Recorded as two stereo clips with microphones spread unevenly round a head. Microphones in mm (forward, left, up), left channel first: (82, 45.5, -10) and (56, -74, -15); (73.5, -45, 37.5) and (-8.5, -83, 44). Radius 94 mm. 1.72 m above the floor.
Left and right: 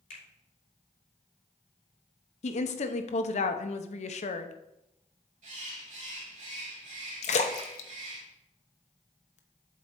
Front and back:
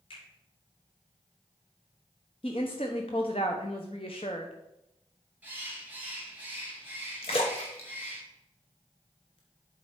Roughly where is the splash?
Left.